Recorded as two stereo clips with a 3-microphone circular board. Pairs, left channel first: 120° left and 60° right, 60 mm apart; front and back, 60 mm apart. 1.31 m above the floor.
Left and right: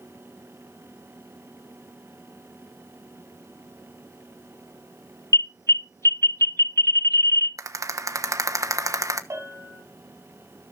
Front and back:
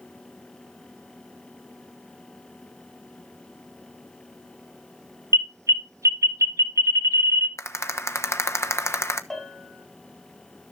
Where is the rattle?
40° right, 1.1 m.